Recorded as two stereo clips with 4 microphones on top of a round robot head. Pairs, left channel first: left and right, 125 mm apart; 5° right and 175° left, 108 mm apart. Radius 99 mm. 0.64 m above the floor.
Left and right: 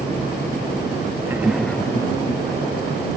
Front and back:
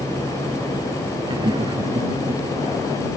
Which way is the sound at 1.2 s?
150° right.